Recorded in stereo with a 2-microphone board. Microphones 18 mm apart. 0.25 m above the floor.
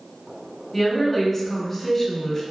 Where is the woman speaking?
20° left (ahead or behind), 1.0 m.